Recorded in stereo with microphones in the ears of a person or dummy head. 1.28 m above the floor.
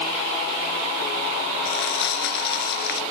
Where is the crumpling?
65° left (ahead or behind).